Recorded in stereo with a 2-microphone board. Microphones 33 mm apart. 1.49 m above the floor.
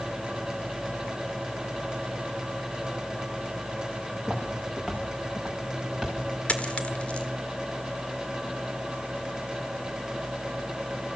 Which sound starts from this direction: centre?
Footsteps, at 4.2 s.